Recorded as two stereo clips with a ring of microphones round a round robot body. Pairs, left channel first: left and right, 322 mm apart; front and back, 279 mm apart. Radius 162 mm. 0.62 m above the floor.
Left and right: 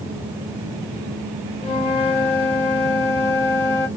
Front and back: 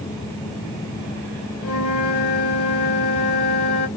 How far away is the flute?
About 1.6 m.